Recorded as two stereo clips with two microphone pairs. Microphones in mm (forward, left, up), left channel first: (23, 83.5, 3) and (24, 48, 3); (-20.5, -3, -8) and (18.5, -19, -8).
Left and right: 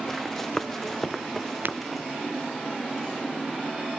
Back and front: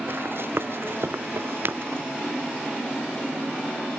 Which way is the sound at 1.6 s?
60° right.